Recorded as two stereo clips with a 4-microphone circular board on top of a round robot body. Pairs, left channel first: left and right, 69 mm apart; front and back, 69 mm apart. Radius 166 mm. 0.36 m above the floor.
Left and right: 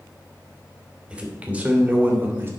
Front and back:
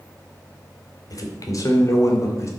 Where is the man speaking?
20° right, 2.5 m; by 2.5 s 35° right, 2.5 m.